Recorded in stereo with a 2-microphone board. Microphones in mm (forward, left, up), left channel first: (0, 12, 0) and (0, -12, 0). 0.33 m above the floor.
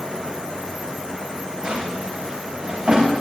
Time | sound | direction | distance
1.6 | a drawer | 50° right (ahead or behind) | 7.5 m